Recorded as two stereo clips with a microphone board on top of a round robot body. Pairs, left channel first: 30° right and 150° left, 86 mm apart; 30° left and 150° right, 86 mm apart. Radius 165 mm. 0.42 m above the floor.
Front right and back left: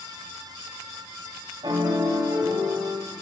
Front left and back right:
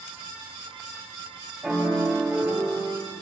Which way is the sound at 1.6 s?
125° left.